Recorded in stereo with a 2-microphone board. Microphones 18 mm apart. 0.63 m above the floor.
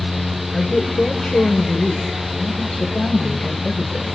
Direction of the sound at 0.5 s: 70° left (ahead or behind).